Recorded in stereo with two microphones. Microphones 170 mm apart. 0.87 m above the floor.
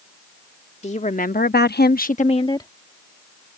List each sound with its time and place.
0.8 s a woman speaking: 40° left (ahead or behind); by 2.7 s 20° left (ahead or behind)